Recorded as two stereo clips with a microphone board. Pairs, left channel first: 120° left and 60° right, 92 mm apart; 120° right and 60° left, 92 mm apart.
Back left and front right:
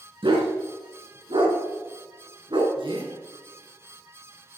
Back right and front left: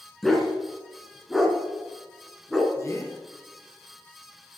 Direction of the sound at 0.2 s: 30° right.